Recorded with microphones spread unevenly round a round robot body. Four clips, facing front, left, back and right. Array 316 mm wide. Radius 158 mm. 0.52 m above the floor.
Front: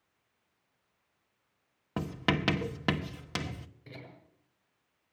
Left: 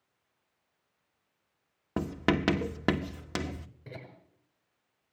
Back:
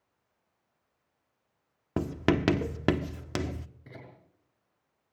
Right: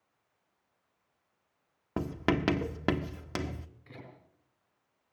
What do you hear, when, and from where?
2.0 s writing: 160° left, 1.2 m
3.9 s laughter: 115° left, 8 m